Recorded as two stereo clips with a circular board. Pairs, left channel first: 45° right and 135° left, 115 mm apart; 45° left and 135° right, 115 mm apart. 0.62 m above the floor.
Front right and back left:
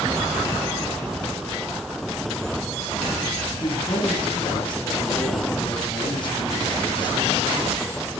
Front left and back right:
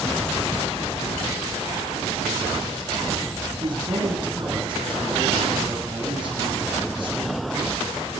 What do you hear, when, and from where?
3.6 s a man speaking: 90° right, 6.5 m